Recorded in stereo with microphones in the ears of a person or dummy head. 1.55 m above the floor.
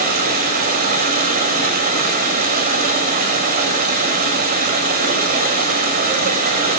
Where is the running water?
50° right (ahead or behind), 6.5 m.